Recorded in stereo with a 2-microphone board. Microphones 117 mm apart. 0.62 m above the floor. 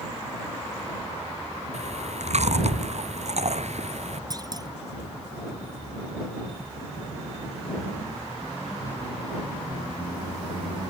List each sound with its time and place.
1.7 s chewing: 65° right (ahead or behind)
4.3 s a clunk: 30° right (ahead or behind)